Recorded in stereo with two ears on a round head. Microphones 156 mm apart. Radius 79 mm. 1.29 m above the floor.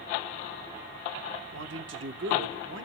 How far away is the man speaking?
About 1.1 m.